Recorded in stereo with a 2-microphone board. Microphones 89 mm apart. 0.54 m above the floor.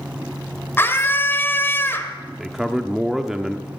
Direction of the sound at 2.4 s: 5° right (ahead or behind).